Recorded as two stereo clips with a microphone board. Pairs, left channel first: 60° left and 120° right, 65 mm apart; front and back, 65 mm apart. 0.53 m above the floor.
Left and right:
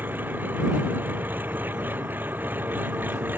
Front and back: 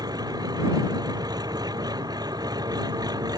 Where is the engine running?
Straight behind.